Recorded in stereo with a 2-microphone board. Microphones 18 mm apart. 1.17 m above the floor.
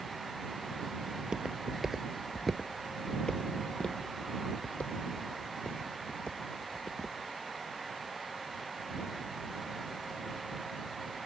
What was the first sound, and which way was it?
Footsteps, 45° right (ahead or behind).